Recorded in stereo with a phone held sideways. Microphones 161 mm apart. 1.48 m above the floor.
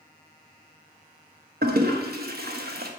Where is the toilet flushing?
75° right (ahead or behind), 1.0 m.